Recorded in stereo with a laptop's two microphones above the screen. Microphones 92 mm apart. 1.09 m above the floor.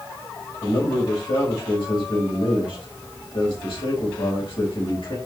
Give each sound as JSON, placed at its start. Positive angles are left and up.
{"t": 0.6, "sound": "a man speaking", "side_deg": 65, "distance_m": 4.5}